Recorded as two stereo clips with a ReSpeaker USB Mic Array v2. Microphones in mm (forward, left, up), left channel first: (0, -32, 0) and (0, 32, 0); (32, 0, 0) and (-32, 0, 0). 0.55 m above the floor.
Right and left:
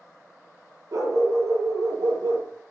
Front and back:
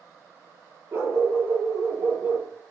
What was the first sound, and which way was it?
A dog barking, 125° left.